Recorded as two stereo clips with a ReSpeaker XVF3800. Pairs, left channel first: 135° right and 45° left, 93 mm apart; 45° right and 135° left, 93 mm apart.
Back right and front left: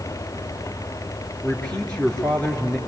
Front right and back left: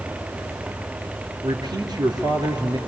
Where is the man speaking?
150° left, 2.5 m.